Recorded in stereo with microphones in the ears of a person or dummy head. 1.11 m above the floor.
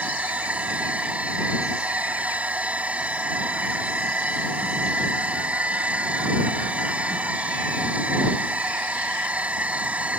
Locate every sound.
0.0 s a machine running: 5° right (ahead or behind)